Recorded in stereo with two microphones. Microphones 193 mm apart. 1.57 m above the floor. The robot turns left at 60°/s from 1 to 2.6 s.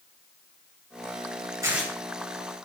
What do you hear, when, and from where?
1.6 s tearing paper: 15° right (ahead or behind), 9 m; by 1.9 s 5° left (ahead or behind), 9 m